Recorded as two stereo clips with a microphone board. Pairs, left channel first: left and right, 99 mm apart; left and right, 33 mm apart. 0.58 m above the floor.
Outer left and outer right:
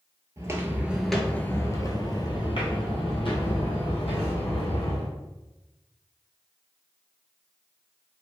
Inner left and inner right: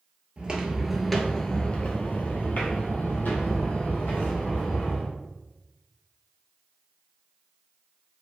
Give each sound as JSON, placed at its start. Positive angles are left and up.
{"t": 0.4, "sound": "footsteps", "side_deg": -35, "distance_m": 0.6}